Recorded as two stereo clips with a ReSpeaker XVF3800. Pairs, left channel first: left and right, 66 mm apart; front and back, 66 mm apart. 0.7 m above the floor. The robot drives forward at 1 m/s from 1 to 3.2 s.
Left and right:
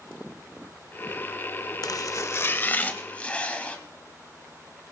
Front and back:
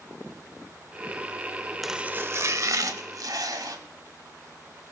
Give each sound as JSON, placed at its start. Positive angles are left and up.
{"t": 1.8, "sound": "chopping", "azimuth_deg": 90, "distance_m": 0.6}